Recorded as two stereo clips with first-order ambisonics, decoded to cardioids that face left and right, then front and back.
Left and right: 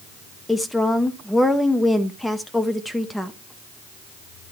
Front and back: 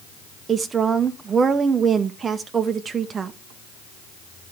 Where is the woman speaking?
165° left, 0.7 m.